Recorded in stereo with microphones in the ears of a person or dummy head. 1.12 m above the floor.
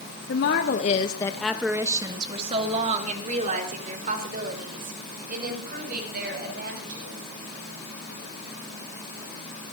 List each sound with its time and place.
0.3 s a woman speaking: 65° left (ahead or behind), 1.8 m; by 7.2 s 55° right (ahead or behind), 9.5 m